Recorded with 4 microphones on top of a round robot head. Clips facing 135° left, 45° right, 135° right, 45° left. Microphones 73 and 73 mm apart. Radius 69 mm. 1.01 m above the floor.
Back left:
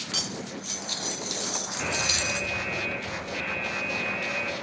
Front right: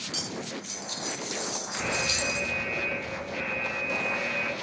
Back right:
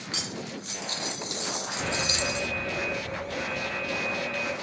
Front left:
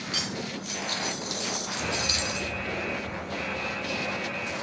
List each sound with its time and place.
0.1 s cutlery clinking: 170° left, 0.6 m
1.8 s an alarm: 120° right, 1.8 m